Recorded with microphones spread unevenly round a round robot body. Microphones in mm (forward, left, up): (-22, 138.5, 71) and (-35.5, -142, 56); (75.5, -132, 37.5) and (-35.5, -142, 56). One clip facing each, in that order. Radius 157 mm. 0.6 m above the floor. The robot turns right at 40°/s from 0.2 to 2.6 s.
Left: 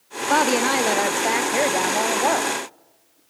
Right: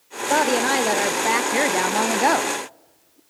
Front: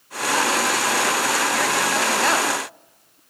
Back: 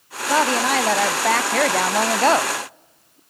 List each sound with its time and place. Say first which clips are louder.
0.3 s a woman speaking: even, back 3 dB; 155° left, 0.8 m; by 3.2 s 110° right, 0.8 m